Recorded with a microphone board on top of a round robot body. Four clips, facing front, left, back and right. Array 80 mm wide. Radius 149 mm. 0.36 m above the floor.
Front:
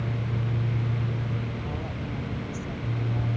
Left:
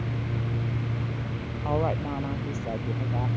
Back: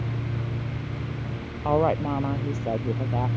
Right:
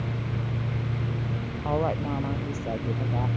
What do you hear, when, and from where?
1.6 s a woman speaking: straight behind; by 3.3 s 175° right